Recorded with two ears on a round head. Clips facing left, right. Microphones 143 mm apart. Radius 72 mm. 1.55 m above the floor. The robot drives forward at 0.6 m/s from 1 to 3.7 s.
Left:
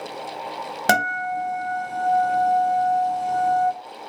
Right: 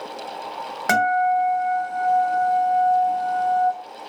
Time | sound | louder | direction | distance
0.9 | a guitar | right 5 dB | 35° left (ahead or behind) | 1.4 m